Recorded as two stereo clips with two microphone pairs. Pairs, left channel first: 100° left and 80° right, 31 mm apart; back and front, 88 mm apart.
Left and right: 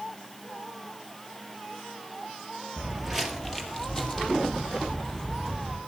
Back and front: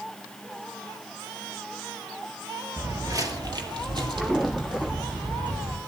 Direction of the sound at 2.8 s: 35° right.